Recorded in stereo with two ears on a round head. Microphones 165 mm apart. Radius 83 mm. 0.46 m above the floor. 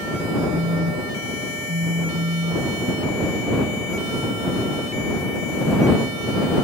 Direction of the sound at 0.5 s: 75° right (ahead or behind).